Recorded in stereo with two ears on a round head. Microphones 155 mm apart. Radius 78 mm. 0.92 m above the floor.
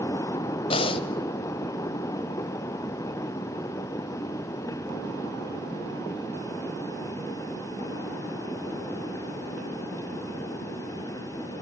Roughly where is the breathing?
Left.